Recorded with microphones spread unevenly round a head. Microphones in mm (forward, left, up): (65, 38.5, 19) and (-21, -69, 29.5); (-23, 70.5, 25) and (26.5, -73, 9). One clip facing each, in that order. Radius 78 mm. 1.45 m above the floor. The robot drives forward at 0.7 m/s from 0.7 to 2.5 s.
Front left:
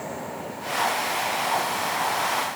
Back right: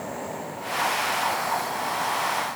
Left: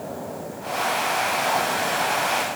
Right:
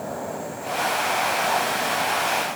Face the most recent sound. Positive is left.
No sound to turn to.